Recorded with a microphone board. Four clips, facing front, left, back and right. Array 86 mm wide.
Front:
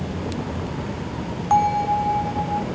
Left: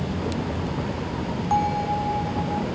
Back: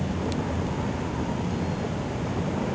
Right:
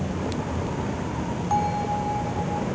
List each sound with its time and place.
1.5 s a bell: 5° left